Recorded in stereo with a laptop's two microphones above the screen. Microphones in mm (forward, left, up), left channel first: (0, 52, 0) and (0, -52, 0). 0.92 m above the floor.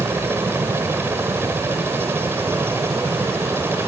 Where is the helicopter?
20° right (ahead or behind).